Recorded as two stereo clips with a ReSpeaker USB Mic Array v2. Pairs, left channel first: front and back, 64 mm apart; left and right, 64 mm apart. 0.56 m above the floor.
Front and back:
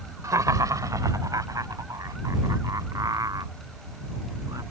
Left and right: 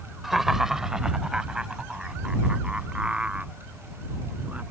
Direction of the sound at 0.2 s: 175° right.